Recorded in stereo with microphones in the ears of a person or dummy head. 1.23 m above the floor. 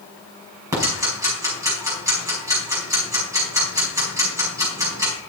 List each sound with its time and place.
0.7 s ticking: 20° right (ahead or behind), 4.5 m